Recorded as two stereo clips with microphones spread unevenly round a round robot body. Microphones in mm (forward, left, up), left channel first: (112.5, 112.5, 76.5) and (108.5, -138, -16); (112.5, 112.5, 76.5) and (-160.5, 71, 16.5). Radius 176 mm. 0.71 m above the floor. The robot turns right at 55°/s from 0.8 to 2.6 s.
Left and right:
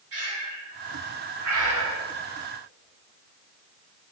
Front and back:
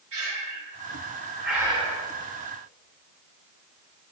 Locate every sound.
0.1 s breathing: 125° right, 2.5 m; by 2.1 s 55° right, 2.5 m